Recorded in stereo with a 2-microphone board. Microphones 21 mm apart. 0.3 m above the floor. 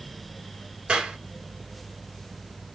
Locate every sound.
0.9 s a clap: 55° right (ahead or behind), 2.5 m